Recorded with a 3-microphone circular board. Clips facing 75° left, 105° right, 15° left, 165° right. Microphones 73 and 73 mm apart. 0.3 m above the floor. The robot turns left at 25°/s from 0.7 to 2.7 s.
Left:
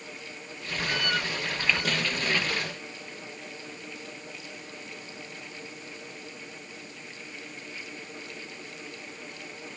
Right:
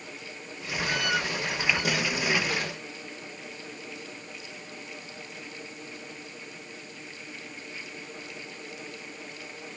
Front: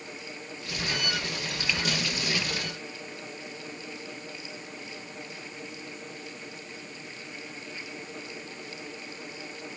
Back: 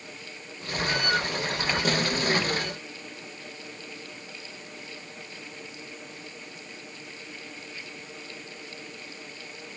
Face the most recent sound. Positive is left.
No sound to turn to.